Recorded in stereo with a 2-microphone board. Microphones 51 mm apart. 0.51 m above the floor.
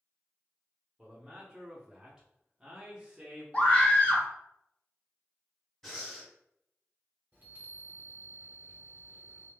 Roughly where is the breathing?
Centre.